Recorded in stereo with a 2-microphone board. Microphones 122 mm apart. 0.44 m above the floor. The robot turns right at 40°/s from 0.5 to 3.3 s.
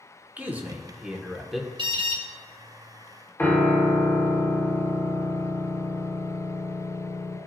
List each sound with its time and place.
0.4 s a man speaking: 15° right (ahead or behind), 0.8 m; by 1.7 s centre (ahead or behind), 0.8 m
1.8 s an alarm: 40° right (ahead or behind), 2.5 m; by 2.2 s 55° right (ahead or behind), 2.5 m
3.4 s a piano: 15° left (ahead or behind), 1.2 m